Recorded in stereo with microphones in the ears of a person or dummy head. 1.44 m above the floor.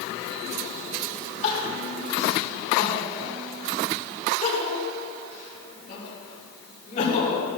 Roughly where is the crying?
Left.